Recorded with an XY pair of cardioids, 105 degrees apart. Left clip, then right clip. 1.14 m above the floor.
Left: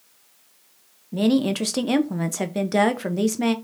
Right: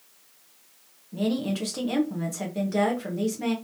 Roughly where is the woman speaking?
Ahead left.